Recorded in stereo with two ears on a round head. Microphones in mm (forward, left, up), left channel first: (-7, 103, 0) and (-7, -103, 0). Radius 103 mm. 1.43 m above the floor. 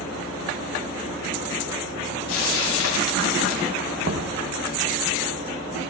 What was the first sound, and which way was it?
Frying, 65° left (ahead or behind).